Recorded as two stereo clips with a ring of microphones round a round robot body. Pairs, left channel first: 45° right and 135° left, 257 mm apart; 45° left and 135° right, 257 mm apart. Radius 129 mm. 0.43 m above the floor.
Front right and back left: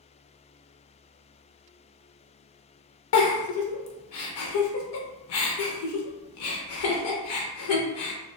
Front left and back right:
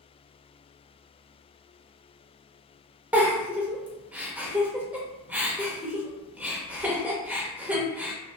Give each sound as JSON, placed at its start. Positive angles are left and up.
{"t": 3.1, "sound": "a giggle", "azimuth_deg": -50, "distance_m": 0.6}